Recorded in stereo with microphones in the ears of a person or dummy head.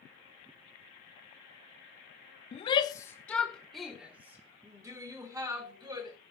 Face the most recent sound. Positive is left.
turn(degrees=-20)  # may be behind; listen again after turning